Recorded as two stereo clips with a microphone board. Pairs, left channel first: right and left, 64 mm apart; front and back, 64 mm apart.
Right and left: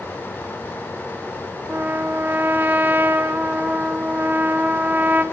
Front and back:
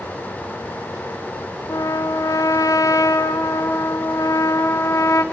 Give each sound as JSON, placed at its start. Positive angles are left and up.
{"t": 1.7, "sound": "a trumpet", "azimuth_deg": 30, "distance_m": 0.8}